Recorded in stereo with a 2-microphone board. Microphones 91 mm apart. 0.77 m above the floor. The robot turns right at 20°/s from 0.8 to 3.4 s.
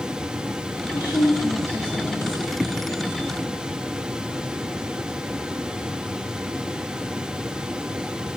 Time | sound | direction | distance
0.9 | a woman speaking | 115° left | 1.8 m